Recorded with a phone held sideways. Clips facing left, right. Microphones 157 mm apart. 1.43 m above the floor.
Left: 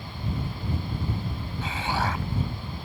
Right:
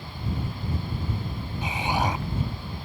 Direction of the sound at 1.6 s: 15° right (ahead or behind).